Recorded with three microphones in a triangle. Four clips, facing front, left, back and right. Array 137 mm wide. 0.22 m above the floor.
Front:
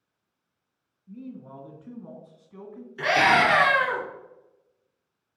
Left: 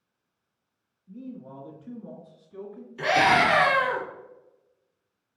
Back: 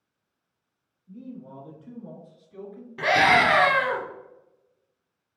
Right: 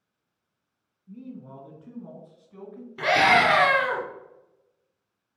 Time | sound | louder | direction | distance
1.1 | a man speaking | left 1 dB, even | 35° right | 2.5 m
3.0 | a scream | right 1 dB, back 1 dB | 140° right | 3 m